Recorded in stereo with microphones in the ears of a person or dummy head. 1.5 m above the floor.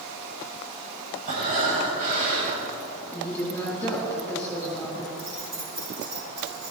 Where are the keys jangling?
55° right (ahead or behind), 4.5 m.